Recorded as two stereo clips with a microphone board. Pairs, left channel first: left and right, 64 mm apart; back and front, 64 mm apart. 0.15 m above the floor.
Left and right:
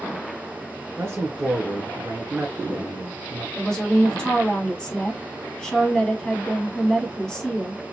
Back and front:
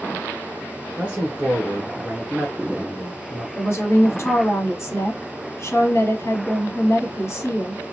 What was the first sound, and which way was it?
A man speaking, 60° right.